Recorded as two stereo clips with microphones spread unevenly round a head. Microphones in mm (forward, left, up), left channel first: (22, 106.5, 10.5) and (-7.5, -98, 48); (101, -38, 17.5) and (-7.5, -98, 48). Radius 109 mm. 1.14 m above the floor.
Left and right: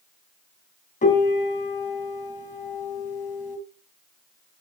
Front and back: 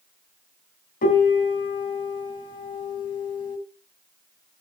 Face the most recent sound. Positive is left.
turn(degrees=25)